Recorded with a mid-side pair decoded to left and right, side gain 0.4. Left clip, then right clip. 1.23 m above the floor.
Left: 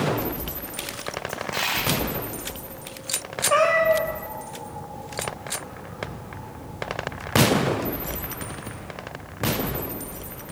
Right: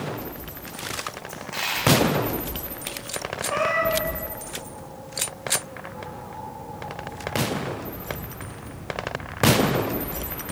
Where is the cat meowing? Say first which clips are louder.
Left 4 dB; 65° left, 3 m.